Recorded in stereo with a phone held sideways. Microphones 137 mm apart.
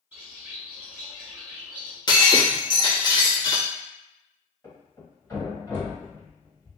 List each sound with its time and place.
0.1 s a bird: 10° right (ahead or behind), 1.3 m
2.1 s breaking glass: 30° left (ahead or behind), 0.7 m
4.6 s a thud: 20° left (ahead or behind), 1.9 m